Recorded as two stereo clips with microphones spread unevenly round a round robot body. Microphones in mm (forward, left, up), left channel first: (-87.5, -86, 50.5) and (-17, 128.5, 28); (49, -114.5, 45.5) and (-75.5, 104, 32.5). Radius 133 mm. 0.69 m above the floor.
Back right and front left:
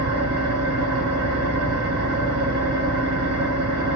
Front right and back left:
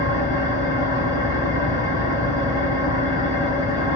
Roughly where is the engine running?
Ahead left.